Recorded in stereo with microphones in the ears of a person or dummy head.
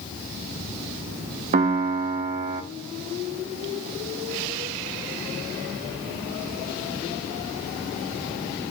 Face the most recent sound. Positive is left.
turn(degrees=-35)  # may be behind; listen again after turning